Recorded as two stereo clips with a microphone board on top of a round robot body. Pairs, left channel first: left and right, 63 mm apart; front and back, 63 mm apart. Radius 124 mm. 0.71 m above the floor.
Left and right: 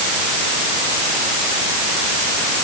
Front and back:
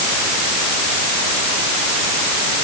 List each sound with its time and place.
Only background noise.